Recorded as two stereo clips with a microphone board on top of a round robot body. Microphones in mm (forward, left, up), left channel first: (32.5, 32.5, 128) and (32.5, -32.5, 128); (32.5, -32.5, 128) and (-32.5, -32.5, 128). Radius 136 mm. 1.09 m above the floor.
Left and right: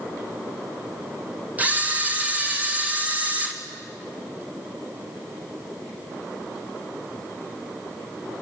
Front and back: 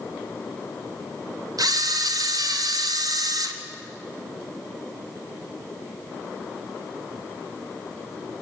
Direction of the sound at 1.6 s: 160° right.